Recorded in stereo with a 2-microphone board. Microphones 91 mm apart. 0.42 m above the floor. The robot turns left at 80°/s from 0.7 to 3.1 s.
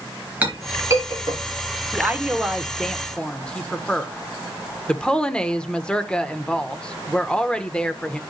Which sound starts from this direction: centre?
A clink, at 0.4 s.